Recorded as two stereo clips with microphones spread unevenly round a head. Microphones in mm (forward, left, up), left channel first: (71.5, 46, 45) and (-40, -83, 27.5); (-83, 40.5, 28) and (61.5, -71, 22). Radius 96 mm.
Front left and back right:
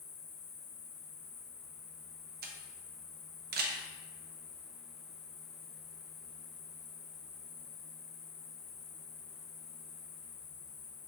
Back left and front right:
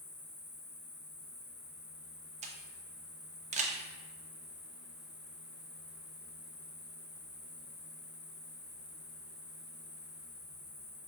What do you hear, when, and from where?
0.0 s an insect: 105° left, 1.0 m
2.4 s a camera shutter: 95° right, 0.6 m